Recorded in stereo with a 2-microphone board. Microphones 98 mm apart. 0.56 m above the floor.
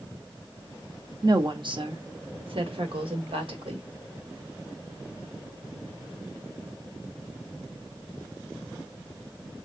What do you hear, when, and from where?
1.2 s a woman speaking: 45° right (ahead or behind), 0.9 m; by 3.9 s 70° right (ahead or behind), 2.5 m